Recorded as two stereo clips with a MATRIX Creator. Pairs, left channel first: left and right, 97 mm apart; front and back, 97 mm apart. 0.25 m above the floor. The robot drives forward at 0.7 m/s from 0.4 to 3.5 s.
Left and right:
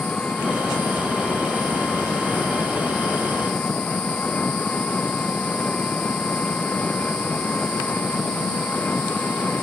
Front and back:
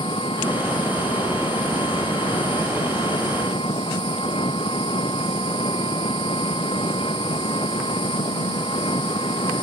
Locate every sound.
0.0 s an engine running: 15° left